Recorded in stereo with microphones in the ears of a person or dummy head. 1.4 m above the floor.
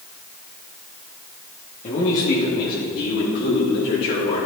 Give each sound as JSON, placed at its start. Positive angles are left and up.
{"t": 1.8, "sound": "a man speaking", "side_deg": 40, "distance_m": 2.0}